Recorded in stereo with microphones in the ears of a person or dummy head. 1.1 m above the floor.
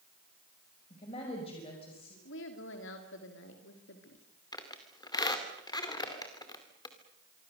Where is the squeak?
25° left (ahead or behind), 2 m.